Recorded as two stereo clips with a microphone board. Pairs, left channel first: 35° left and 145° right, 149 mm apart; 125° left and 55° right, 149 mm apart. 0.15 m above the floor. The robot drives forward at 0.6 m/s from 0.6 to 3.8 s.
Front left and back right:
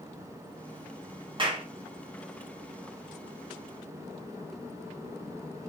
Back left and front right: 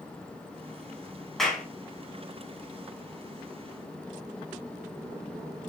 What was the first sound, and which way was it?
A clap, 150° right.